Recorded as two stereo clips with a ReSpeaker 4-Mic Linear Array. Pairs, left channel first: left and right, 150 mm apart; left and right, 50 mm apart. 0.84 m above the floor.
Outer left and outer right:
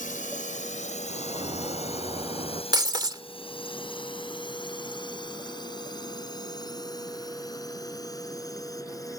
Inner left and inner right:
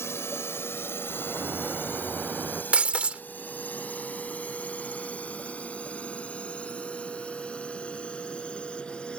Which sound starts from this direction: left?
A drone, at 0.0 s.